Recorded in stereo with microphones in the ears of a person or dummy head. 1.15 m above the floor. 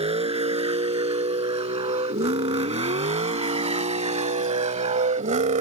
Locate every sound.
0.0 s a vehicle: 35° right (ahead or behind); by 5.6 s 45° right (ahead or behind)